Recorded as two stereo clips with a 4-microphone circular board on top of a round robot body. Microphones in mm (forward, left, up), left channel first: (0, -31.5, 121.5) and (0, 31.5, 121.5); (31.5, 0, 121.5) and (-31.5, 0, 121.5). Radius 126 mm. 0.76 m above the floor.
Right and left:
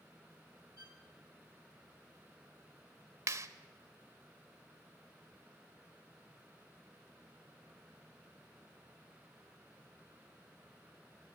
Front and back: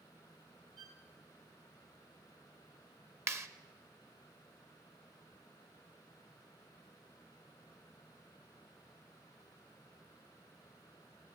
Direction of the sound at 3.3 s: 135° left.